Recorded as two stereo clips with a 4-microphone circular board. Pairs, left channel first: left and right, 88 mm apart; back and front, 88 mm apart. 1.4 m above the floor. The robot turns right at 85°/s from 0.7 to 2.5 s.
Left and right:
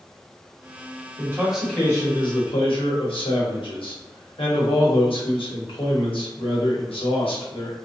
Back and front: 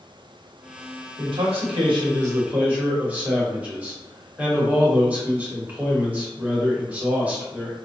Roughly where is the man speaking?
Ahead right.